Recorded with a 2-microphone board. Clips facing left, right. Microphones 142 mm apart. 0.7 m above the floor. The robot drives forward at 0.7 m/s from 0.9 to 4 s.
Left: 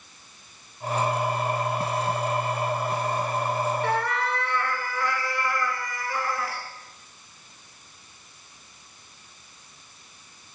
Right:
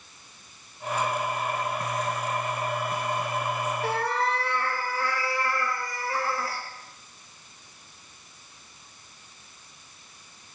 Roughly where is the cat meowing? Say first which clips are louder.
Left 1 dB; right.